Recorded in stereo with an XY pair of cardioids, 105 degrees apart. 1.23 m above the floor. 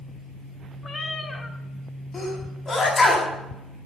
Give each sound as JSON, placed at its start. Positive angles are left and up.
{"t": 0.8, "sound": "a cat meowing", "azimuth_deg": 35, "distance_m": 1.8}
{"t": 2.1, "sound": "a sneeze", "azimuth_deg": 40, "distance_m": 7.5}